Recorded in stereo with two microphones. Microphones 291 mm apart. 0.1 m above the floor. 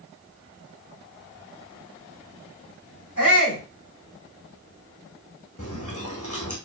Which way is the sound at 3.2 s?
70° left (ahead or behind).